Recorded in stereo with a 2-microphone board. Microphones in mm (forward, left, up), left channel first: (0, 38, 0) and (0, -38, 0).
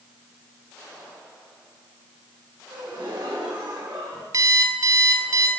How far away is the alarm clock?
About 2.5 m.